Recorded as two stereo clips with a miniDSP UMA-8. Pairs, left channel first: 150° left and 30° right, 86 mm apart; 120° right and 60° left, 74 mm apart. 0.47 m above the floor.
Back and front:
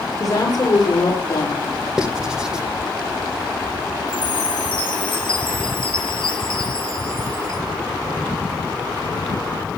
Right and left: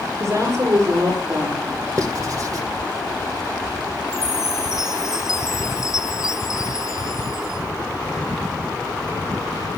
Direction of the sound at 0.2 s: 110° left.